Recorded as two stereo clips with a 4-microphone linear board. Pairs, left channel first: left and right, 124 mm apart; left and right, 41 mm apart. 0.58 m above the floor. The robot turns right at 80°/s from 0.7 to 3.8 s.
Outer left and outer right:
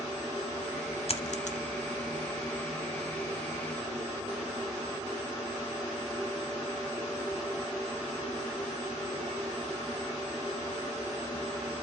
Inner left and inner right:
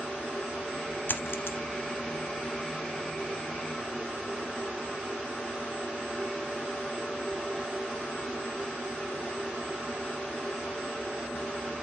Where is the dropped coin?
55° left (ahead or behind), 1.1 m; by 1.6 s 70° left (ahead or behind), 1.1 m.